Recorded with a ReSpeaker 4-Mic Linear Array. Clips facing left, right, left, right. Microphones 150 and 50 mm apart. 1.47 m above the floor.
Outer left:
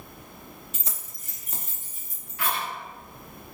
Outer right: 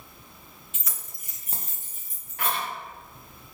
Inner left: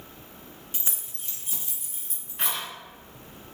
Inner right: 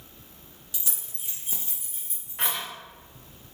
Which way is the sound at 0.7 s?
40° left (ahead or behind).